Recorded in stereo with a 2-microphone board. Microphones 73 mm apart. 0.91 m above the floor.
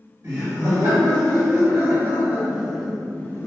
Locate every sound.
0.2 s laughter: 50° right (ahead or behind), 1.8 m; by 3.5 s 35° left (ahead or behind), 0.6 m